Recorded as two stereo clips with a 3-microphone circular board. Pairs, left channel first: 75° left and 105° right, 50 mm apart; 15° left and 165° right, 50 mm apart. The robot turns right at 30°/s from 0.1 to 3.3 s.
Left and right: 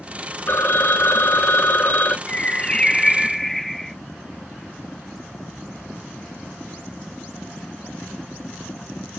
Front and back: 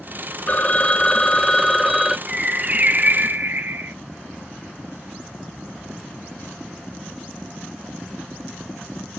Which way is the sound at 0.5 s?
65° left.